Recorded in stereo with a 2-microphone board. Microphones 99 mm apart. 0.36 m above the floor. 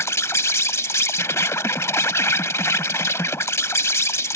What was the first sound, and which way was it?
An insect, 30° left (ahead or behind).